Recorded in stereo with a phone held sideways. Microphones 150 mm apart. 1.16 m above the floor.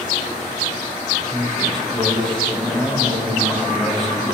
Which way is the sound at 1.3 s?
5° left (ahead or behind).